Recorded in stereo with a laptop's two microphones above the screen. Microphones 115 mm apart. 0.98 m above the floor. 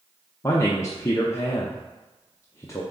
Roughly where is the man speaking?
Left.